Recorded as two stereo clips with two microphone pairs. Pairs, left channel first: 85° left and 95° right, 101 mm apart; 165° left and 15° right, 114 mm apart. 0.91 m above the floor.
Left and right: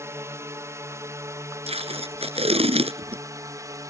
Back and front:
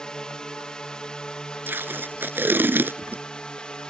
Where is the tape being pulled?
85° right.